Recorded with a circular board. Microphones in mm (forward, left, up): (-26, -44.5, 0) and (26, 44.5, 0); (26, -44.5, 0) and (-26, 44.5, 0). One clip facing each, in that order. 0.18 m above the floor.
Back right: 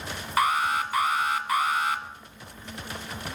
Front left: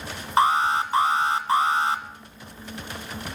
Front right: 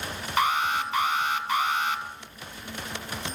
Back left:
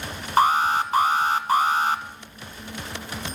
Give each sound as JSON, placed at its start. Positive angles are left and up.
{"t": 0.4, "sound": "an alarm", "azimuth_deg": 100, "distance_m": 1.3}